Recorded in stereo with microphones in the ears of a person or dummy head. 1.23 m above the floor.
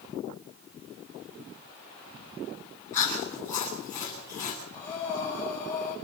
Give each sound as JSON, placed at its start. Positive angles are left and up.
{"t": 2.9, "sound": "chewing", "side_deg": 20, "distance_m": 8.5}
{"t": 4.7, "sound": "breathing", "side_deg": 15, "distance_m": 8.0}